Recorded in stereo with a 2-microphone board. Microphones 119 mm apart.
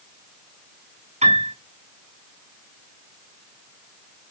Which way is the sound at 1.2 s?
75° right (ahead or behind).